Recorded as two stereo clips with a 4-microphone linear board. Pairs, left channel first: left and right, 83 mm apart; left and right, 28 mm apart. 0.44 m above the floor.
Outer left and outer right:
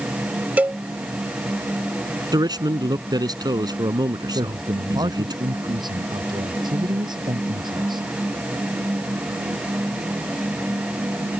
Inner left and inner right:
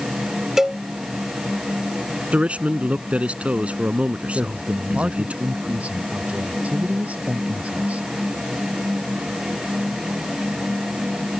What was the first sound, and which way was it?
A cowbell, 20° right (ahead or behind).